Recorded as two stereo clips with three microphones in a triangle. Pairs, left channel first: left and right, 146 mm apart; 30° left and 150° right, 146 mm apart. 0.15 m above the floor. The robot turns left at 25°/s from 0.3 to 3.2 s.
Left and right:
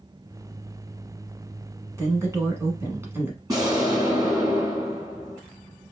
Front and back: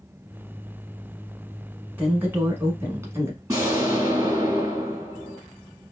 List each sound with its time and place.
2.0 s a woman speaking: 100° right, 1.1 m; by 3.4 s 130° right, 1.1 m
3.5 s an explosion: 120° right, 1.4 m